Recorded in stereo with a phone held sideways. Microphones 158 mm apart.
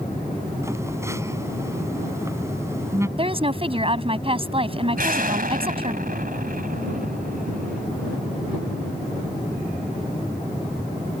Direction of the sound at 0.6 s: 20° right (ahead or behind).